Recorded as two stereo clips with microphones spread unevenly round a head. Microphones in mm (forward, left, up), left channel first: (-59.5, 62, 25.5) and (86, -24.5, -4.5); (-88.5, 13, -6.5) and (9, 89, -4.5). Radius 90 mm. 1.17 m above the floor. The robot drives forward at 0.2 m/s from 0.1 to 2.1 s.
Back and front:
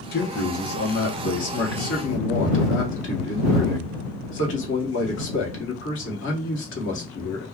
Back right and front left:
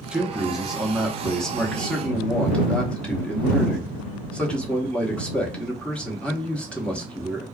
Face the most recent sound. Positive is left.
turn(degrees=140)